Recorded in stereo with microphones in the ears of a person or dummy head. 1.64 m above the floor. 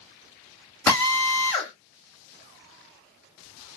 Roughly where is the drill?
Centre.